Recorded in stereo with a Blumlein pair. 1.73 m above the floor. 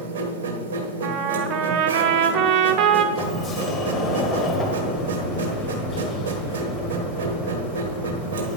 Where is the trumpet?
40° right, 0.7 m.